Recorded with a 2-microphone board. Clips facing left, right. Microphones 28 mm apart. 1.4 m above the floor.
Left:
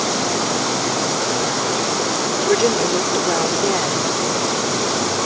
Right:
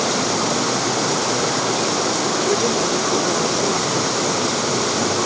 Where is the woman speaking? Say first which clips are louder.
Left 5 dB; 30° left (ahead or behind).